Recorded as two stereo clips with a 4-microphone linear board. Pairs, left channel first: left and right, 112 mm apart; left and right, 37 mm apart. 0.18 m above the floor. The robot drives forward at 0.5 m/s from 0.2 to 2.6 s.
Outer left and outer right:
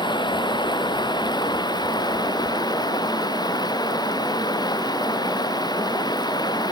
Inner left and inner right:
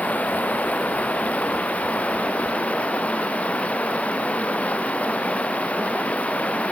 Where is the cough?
I don't hear a cough.